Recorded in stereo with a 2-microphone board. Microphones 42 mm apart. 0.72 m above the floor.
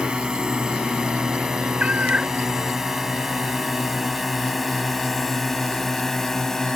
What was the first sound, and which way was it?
A drone, 20° right (ahead or behind).